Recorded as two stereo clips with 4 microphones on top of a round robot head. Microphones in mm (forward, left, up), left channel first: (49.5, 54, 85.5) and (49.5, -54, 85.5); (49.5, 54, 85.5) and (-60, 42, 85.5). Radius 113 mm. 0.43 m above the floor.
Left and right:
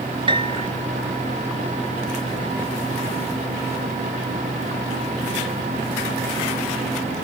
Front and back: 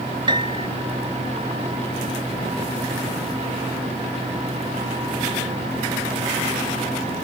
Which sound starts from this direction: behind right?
A piano, at 0.3 s.